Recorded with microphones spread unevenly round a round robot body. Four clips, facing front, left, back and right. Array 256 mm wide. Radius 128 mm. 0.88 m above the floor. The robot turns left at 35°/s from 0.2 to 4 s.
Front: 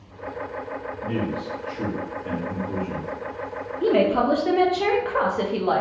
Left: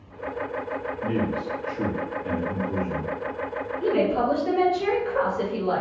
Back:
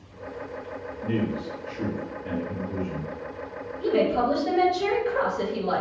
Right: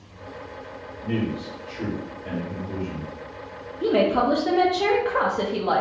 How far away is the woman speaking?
About 0.7 m.